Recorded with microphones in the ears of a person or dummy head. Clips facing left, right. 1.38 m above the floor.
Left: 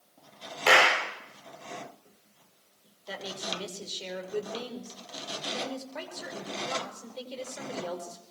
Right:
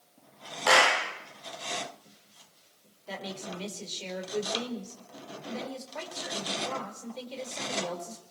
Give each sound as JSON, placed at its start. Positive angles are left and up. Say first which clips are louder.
{"t": 0.7, "sound": "a clap", "louder": "left 1 dB", "side_deg": 35, "distance_m": 4.0}
{"t": 3.1, "sound": "a woman speaking", "louder": "left 1 dB", "side_deg": 10, "distance_m": 5.5}